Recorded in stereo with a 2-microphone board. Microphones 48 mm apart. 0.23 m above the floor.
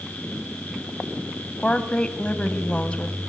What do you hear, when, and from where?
1.6 s a woman speaking: 25° left (ahead or behind), 1.1 m